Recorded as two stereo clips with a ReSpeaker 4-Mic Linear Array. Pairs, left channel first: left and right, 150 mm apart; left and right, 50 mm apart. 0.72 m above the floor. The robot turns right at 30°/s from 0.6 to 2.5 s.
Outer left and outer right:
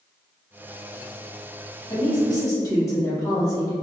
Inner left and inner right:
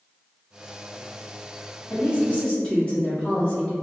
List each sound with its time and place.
1.9 s a woman speaking: 35° left (ahead or behind), 1.7 m; by 3.7 s 20° left (ahead or behind), 1.7 m